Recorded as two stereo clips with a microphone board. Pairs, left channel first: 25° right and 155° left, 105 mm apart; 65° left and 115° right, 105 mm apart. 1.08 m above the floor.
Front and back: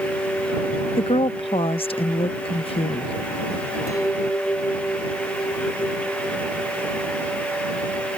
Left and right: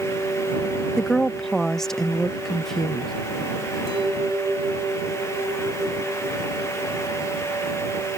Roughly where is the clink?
Right.